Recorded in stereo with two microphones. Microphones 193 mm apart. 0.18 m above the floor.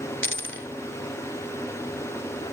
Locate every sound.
0.2 s a dropped coin: 75° left (ahead or behind), 0.5 m